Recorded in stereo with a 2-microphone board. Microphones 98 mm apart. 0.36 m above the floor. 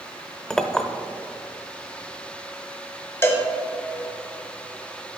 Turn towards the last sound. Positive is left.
turn(degrees=25)  # may be behind; listen again after turning